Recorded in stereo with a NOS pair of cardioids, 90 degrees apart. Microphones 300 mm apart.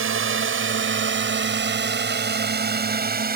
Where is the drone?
45° right; by 3.4 s 30° right.